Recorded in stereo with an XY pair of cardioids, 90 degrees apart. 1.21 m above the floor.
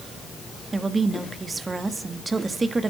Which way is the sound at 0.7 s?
30° right.